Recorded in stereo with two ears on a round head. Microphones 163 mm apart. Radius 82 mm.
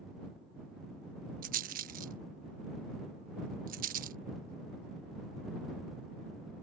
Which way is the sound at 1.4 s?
55° right (ahead or behind).